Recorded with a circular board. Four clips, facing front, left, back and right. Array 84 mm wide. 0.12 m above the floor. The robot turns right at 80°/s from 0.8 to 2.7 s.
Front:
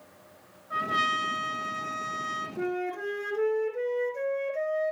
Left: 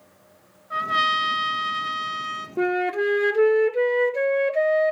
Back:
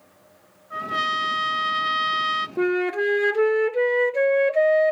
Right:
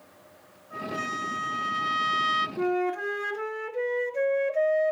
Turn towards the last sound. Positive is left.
turn(degrees=145)